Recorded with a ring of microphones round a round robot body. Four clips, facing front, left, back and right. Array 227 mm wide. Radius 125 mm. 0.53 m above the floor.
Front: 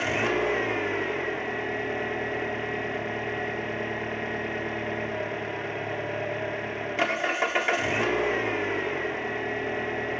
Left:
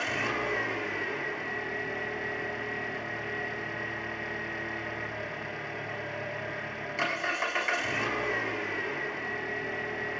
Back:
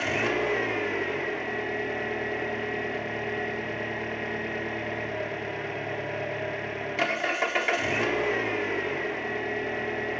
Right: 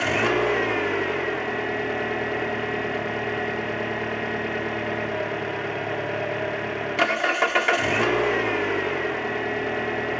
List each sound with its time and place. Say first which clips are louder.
0.0 s an engine running: right 10 dB, front 1 dB; 85° right, 1.4 m